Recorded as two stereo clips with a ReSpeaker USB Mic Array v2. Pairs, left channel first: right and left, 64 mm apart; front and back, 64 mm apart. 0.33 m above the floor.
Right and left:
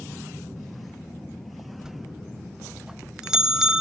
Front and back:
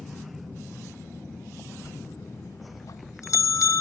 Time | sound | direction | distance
1.8 | a bell | 10° left | 0.9 m